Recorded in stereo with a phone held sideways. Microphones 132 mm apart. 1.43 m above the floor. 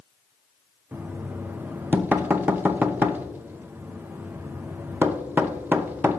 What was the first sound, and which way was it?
Knocking, 15° right (ahead or behind).